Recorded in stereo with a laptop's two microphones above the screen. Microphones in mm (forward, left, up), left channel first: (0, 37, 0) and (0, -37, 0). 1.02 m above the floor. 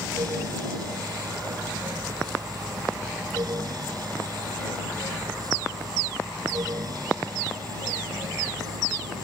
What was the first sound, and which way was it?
A fan, 55° right (ahead or behind).